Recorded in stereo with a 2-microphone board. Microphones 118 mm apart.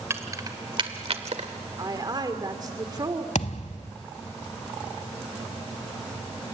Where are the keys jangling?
25° right (ahead or behind), 1.5 m; by 1.5 s 70° right (ahead or behind), 1.4 m.